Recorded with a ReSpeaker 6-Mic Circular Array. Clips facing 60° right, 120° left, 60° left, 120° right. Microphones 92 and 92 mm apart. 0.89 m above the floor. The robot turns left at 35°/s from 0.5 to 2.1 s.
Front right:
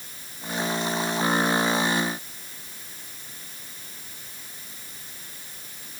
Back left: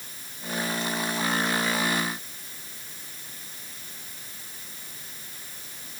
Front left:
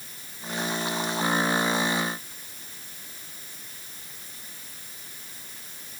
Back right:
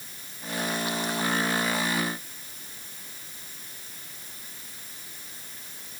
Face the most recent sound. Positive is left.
No sound to turn to.